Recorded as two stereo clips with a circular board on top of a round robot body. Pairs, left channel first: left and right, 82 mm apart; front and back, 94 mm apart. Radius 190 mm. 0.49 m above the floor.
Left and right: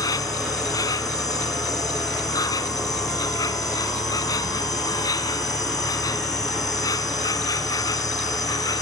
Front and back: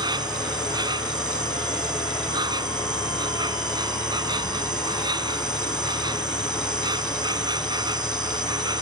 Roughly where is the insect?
Behind left.